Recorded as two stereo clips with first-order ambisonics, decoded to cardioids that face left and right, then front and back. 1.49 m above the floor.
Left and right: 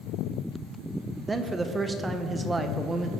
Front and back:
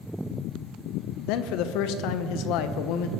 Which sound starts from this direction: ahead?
A man speaking, at 1.3 s.